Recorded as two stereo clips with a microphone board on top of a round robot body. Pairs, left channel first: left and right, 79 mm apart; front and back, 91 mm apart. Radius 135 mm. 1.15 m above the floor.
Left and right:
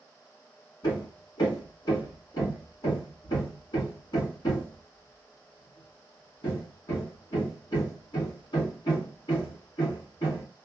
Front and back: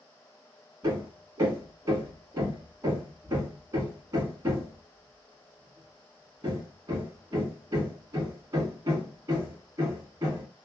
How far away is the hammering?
About 1.7 m.